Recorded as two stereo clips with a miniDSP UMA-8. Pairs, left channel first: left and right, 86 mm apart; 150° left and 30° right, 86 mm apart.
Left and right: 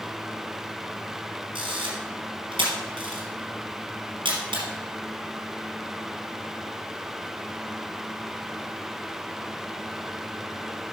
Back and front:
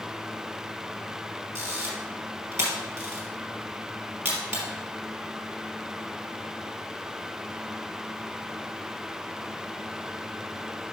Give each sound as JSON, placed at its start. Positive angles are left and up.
{"t": 1.6, "sound": "a camera shutter", "azimuth_deg": -85, "distance_m": 3.5}